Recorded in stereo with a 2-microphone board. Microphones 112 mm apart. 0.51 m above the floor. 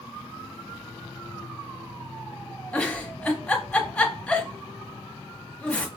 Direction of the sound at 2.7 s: 10° left (ahead or behind).